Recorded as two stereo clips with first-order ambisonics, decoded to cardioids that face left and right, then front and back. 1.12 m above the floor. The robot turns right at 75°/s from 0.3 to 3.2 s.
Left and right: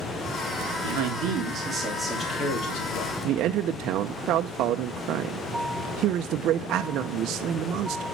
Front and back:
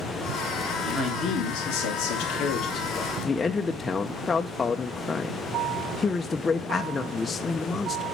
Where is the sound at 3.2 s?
70° right, 0.6 m.